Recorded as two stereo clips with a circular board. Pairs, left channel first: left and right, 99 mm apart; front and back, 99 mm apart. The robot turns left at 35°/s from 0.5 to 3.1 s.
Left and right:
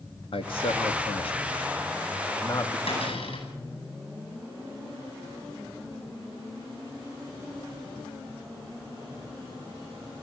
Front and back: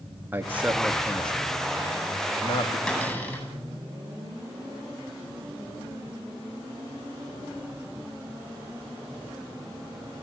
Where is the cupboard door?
75° left, 9.5 m; by 3.5 s 70° left, 9.5 m.